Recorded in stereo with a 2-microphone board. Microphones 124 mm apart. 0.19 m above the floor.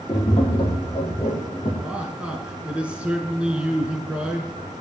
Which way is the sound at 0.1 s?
45° left (ahead or behind).